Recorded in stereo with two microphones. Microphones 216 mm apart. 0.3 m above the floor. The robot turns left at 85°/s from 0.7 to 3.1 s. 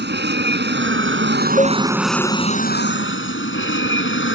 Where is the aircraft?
60° right; by 4.4 s 95° left.